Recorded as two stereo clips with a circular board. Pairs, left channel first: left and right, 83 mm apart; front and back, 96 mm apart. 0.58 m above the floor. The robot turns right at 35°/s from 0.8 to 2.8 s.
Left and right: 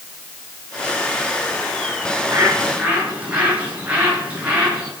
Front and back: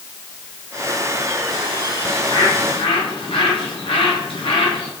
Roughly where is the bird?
Ahead right.